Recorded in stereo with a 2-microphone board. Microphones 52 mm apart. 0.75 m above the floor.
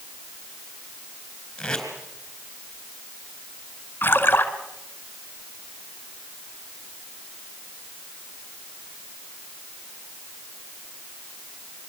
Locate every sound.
1.6 s tape being pulled: 15° left (ahead or behind), 4 m
4.0 s a splash: 40° left (ahead or behind), 1.8 m